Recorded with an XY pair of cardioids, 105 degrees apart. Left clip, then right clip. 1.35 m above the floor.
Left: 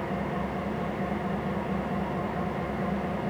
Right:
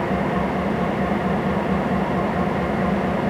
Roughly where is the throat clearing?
No throat clearing in this recording.